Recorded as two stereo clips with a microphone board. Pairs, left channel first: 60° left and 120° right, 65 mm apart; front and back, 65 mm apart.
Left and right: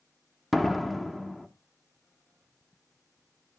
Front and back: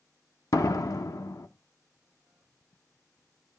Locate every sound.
0.5 s a door slam: 30° right, 1.0 m